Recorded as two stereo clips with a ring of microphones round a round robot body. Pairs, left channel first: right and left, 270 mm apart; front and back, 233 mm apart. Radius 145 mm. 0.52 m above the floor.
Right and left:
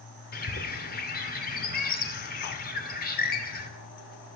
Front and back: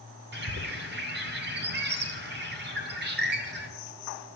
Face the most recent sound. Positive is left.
turn(degrees=-140)